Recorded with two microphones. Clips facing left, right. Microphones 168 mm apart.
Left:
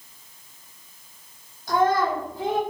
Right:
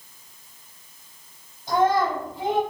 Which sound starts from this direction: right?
A child speaking, at 1.7 s.